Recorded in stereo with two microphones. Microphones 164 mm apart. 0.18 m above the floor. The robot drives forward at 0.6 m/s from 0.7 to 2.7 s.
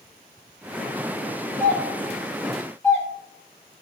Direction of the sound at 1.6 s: 15° left (ahead or behind).